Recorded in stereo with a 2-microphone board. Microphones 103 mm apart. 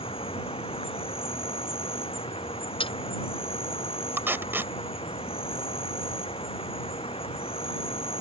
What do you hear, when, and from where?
0.0 s an insect: 65° left (ahead or behind)
2.8 s a dropped coin: 55° left (ahead or behind)
4.2 s tape being pulled: 20° right (ahead or behind)